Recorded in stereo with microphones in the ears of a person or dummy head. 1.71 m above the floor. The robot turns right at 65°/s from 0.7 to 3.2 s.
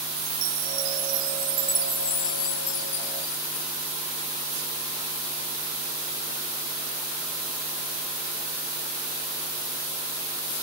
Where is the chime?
80° right; by 3.7 s 80° left.